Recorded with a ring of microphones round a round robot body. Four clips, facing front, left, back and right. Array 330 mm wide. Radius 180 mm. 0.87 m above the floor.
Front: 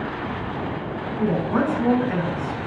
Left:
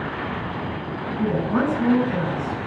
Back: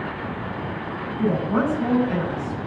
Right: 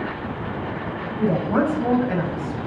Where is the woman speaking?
75° right, 7 m.